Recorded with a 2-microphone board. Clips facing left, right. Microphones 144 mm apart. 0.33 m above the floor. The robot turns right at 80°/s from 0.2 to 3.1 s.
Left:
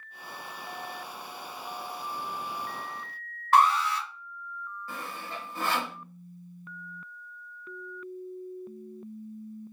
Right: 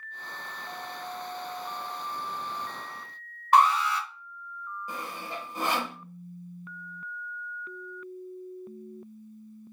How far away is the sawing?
About 0.7 m.